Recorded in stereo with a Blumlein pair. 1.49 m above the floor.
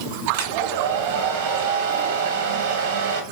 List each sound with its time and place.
0.3 s a hair dryer: 55° right, 1.5 m